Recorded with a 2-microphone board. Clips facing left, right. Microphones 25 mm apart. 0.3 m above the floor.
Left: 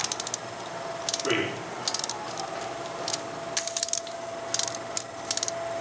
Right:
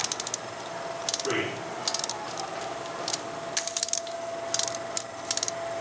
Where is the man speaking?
30° left (ahead or behind), 6 m.